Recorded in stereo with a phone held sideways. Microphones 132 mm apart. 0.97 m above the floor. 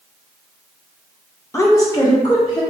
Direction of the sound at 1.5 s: 20° left (ahead or behind).